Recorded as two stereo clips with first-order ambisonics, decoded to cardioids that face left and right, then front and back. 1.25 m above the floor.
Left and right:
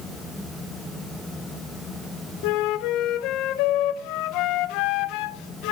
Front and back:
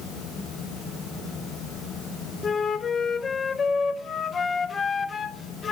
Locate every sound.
2.4 s a flute: 70° left, 0.6 m